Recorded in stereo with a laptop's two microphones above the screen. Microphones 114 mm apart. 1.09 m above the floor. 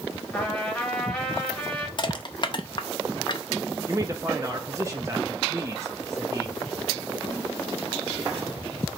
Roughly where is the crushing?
Left.